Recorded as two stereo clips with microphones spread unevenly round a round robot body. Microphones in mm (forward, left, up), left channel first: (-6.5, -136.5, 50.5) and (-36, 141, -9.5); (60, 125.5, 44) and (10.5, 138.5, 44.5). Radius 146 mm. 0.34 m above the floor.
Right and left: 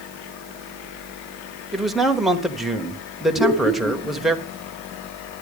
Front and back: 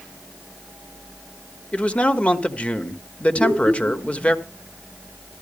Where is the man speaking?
25° left, 1.4 m.